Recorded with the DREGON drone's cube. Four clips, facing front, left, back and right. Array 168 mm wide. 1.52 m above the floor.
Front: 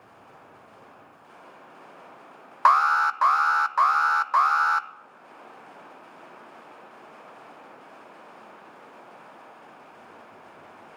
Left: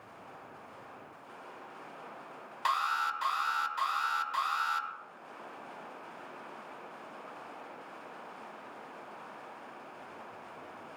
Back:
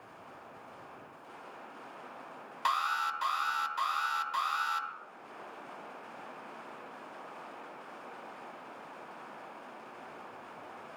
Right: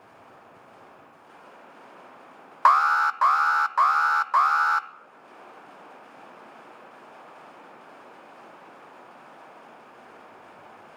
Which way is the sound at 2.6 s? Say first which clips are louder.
Right 12 dB, front 13 dB; 45° right.